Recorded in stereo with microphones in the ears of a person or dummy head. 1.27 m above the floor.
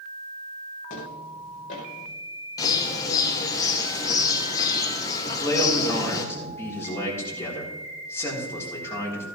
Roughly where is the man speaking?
Centre.